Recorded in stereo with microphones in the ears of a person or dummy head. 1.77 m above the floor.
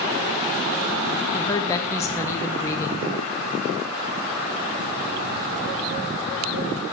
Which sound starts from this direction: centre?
A woman speaking, at 1.3 s.